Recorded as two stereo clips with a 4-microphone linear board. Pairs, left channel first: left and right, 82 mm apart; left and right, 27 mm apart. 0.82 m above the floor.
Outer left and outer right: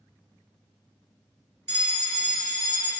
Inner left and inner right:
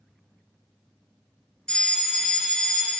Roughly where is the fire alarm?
Left.